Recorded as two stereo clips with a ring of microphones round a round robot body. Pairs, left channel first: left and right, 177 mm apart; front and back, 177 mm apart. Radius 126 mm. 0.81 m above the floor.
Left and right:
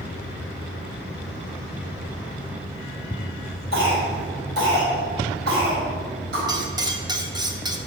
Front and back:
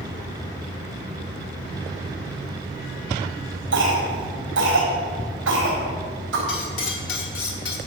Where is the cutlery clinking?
20° right, 1.3 m.